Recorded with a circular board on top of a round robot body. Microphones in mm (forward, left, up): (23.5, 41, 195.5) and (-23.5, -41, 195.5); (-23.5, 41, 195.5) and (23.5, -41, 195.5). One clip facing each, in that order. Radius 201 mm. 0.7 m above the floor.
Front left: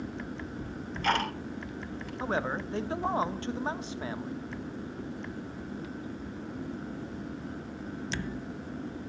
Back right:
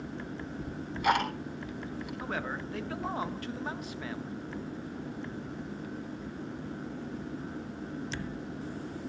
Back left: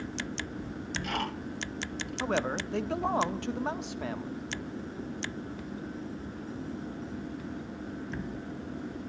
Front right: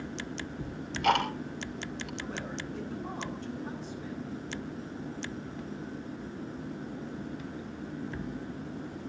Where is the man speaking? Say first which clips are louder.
Front left 6 dB, back left 8 dB; 120° left, 1.7 m.